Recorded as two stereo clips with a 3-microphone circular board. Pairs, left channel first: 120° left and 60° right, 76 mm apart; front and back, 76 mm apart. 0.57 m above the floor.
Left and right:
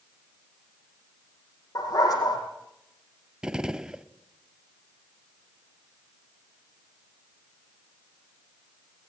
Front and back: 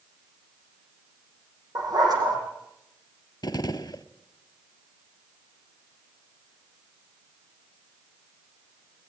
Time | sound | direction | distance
1.8 | a dog barking | 150° left | 6.5 m
3.4 | a gunshot | 20° left | 0.8 m